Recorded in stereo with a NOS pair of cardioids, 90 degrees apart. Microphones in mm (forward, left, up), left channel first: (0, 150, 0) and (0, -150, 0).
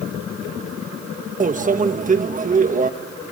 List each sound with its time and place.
1.4 s a microwave: 25° right, 1.4 m